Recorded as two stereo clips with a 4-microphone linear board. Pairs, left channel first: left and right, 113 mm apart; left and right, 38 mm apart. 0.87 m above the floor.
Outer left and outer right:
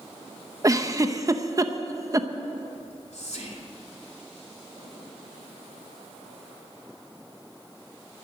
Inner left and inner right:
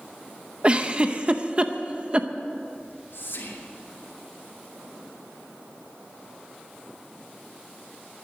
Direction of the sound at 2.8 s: 75° left (ahead or behind).